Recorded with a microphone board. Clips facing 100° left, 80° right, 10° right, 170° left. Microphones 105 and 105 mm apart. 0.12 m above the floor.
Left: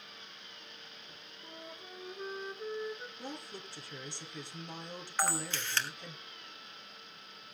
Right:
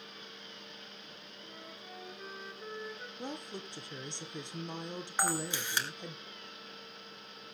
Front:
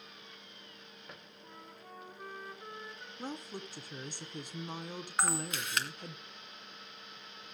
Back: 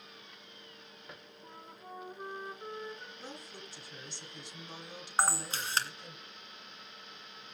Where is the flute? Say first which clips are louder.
Left 2 dB, back 3 dB; 130° left, 1.5 m.